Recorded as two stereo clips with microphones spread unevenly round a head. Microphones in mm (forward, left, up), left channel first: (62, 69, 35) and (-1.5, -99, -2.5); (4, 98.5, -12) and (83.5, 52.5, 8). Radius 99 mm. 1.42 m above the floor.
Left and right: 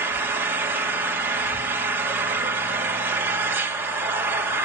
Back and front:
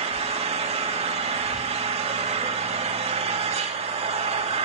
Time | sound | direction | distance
0.0 | an engine running | 30° right | 3 m